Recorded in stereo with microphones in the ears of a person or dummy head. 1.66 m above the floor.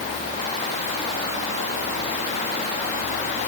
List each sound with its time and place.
Only background noise.